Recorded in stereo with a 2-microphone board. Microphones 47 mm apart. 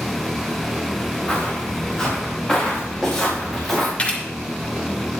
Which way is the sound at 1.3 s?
20° left (ahead or behind).